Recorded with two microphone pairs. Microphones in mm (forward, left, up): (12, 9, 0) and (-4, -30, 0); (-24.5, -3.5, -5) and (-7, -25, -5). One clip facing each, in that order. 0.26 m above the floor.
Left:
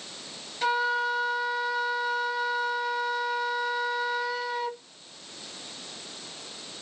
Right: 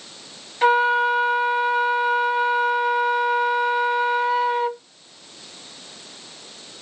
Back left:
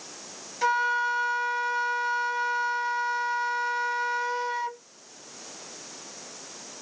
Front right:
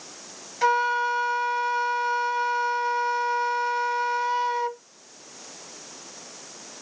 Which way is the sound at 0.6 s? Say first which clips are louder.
Right 9 dB, front right 2 dB; 115° right.